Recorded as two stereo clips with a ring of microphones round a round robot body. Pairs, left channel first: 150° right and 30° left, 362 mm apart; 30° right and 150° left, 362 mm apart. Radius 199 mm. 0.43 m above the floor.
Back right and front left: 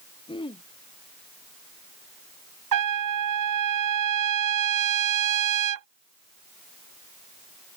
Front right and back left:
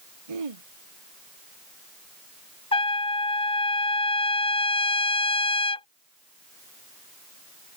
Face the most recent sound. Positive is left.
turn(degrees=40)